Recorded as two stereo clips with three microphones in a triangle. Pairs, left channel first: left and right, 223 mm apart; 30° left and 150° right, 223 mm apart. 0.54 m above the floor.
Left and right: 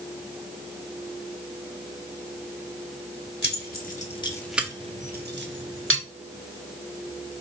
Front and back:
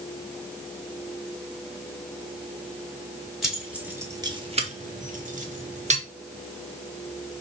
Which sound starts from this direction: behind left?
Keys jangling, at 3.4 s.